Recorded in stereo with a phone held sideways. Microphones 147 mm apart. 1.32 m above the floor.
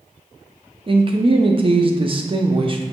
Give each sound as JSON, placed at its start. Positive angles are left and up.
{"t": 0.9, "sound": "a man speaking", "side_deg": -40, "distance_m": 0.5}